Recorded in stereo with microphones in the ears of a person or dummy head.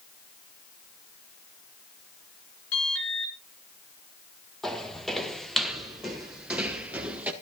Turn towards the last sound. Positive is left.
turn(degrees=-5)  # may be behind; listen again after turning